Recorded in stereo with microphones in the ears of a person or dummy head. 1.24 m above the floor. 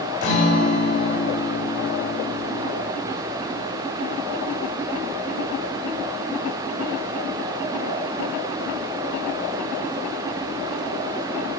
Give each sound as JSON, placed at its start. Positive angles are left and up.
{"t": 0.2, "sound": "a guitar", "side_deg": 55, "distance_m": 3.0}